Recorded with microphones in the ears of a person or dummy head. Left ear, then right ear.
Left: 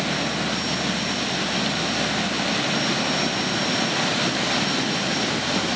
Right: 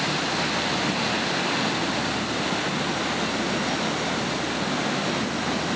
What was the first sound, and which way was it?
Only background noise.